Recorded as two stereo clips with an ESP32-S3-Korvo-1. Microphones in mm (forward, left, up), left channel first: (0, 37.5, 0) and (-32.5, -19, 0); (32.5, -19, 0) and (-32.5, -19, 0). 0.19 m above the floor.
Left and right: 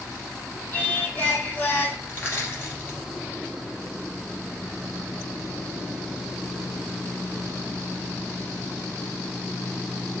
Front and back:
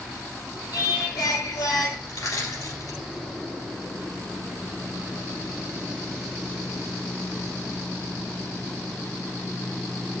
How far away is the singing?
About 1.3 m.